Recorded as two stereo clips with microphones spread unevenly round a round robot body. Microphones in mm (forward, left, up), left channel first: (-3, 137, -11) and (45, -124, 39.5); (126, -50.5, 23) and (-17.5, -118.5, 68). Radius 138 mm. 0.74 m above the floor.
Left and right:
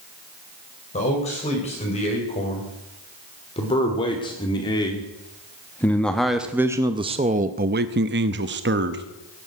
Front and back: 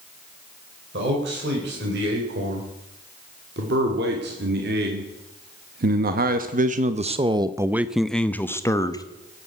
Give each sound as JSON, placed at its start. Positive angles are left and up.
{"t": 0.9, "sound": "a man speaking", "azimuth_deg": 165, "distance_m": 3.5}